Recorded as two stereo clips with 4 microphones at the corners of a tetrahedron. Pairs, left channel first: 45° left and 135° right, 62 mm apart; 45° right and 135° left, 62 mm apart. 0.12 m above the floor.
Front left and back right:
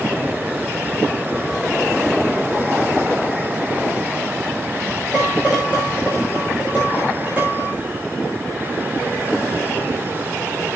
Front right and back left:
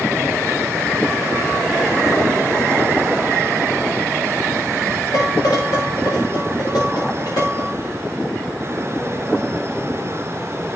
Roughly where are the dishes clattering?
Ahead right.